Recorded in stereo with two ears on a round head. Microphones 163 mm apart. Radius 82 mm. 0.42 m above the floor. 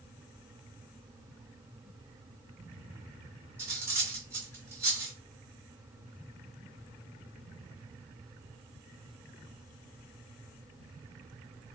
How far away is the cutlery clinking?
About 1.6 m.